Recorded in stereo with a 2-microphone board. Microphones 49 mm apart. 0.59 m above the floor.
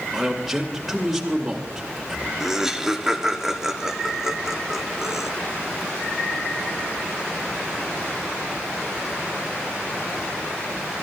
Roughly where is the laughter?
Centre.